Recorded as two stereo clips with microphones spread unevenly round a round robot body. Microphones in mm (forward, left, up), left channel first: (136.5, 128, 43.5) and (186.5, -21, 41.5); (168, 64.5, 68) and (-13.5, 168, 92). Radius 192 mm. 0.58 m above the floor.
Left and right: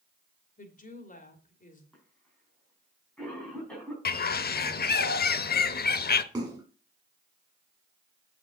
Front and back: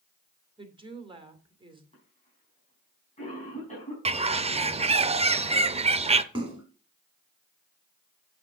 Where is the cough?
25° left, 5 m.